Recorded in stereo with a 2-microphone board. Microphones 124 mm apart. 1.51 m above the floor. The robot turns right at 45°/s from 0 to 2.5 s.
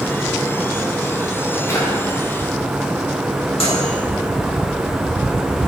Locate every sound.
1.7 s a drawer: 20° left (ahead or behind), 2.5 m; by 1.9 s 30° left (ahead or behind), 2.5 m
3.6 s a microwave: 50° left (ahead or behind), 2 m